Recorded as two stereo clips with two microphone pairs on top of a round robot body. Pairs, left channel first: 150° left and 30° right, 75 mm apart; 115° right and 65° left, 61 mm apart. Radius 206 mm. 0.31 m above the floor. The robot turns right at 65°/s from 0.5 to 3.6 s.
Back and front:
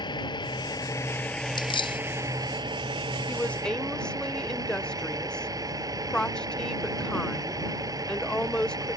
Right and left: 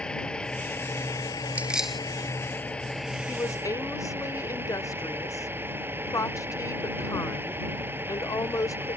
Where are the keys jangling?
130° left; by 2.0 s 160° left.